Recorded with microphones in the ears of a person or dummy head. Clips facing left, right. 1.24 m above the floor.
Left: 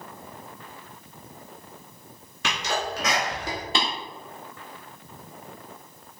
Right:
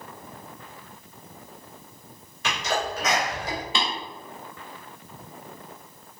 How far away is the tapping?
About 1.1 m.